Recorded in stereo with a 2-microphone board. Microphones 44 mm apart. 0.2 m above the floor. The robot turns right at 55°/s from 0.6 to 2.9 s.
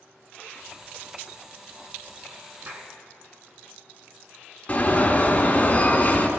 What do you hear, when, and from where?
2.7 s a clap: 50° right (ahead or behind), 1.8 m; by 2.9 s 45° right (ahead or behind), 1.8 m
4.7 s an alarm: 30° left (ahead or behind), 1.2 m